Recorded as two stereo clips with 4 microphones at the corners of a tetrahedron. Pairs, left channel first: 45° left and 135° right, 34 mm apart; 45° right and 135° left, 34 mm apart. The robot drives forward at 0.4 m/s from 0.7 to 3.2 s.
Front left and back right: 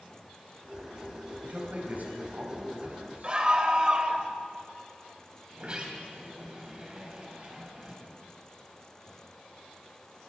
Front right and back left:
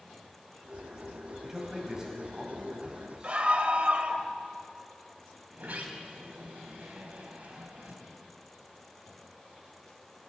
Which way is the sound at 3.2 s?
175° left.